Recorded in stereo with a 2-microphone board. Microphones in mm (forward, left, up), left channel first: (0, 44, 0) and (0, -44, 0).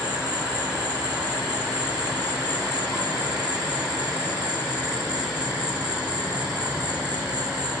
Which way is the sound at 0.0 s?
10° right (ahead or behind).